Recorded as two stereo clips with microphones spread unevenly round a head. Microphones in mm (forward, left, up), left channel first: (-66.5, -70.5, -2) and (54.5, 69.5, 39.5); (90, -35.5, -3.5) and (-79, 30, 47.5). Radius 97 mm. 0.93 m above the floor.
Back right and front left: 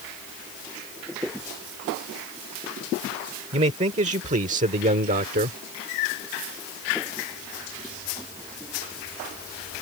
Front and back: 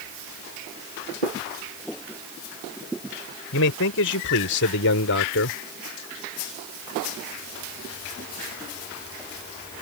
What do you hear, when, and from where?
3.5 s a man speaking: 10° right; by 5.6 s straight ahead